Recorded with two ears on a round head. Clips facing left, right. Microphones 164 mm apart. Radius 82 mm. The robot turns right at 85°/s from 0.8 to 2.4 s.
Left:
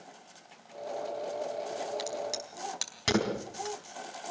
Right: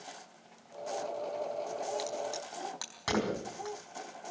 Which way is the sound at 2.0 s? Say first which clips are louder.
Left 1 dB; 5° right (ahead or behind).